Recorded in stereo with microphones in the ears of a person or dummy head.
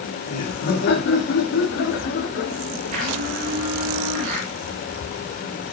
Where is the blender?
50° right (ahead or behind), 5 m.